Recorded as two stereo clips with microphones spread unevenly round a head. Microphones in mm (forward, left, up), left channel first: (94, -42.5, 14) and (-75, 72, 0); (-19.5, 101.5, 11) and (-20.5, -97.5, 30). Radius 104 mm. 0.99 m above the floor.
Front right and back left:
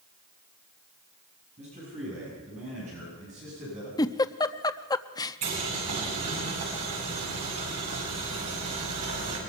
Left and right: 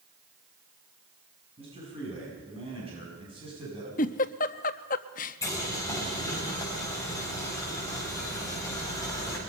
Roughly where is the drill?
I don't hear a drill.